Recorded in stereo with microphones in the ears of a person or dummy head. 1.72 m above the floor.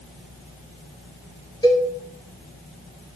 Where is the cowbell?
20° left (ahead or behind), 2.5 m.